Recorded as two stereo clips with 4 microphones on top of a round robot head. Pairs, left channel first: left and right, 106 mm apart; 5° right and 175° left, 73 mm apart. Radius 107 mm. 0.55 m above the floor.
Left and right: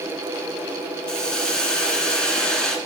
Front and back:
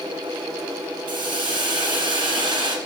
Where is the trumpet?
I don't hear a trumpet.